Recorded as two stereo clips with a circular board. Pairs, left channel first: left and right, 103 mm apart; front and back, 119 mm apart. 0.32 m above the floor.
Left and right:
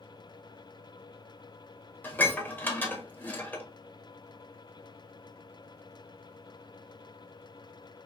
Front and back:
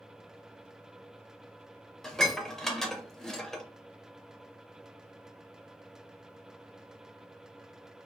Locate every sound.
2.0 s dishes clattering: 80° left, 0.5 m